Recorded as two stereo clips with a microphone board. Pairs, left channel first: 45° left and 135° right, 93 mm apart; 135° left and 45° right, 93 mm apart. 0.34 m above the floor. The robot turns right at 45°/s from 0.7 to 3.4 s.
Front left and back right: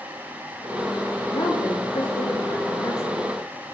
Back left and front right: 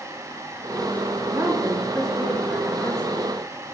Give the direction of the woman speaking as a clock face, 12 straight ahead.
12 o'clock.